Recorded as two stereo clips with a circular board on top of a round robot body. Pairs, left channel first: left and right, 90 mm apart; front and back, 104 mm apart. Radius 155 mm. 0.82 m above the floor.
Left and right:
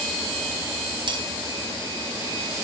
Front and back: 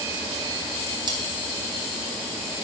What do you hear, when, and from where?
1.1 s cutlery clinking: 130° right, 1.8 m